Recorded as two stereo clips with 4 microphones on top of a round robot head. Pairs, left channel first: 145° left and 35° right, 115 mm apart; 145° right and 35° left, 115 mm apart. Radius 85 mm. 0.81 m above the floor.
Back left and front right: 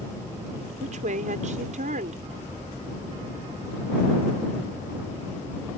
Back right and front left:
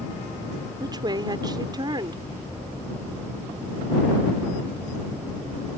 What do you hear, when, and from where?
0.8 s a woman speaking: 20° right